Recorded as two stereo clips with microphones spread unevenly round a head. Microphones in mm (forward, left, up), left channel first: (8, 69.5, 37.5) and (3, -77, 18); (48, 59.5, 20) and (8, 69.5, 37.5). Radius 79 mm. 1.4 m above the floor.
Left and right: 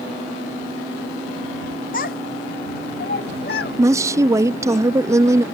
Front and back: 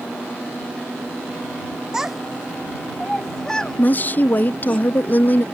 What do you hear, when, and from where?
1.9 s a child speaking: 105° left; by 4.8 s 60° left
3.8 s a woman speaking: 30° right